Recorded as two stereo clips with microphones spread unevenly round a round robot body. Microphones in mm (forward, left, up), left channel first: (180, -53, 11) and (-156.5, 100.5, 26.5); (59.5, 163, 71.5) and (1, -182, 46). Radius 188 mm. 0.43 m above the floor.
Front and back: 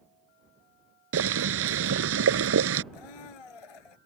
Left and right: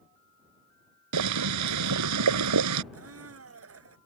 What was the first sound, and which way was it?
Boiling, 145° right.